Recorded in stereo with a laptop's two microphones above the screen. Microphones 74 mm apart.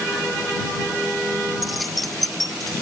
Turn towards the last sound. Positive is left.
turn(degrees=0)  # may be behind; listen again after turning